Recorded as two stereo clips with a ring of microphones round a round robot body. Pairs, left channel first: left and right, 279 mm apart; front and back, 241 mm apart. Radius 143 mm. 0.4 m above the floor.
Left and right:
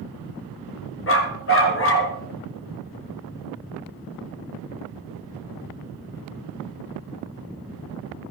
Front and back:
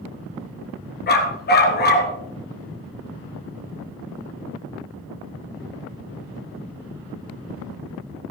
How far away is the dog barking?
About 2.5 m.